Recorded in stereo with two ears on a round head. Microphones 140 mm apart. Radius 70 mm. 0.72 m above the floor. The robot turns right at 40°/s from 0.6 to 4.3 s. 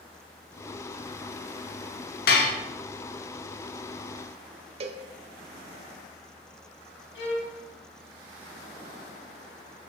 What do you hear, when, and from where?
2.3 s dishes clattering: 65° left (ahead or behind), 1.0 m; by 2.6 s 55° left (ahead or behind), 1.0 m
4.8 s a cowbell: 40° right (ahead or behind), 0.5 m
7.2 s a violin: 85° left, 1.3 m